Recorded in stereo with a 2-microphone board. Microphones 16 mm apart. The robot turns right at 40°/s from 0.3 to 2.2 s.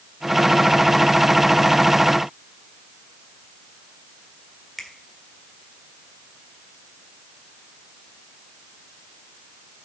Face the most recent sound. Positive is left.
turn(degrees=10)  # may be behind; listen again after turning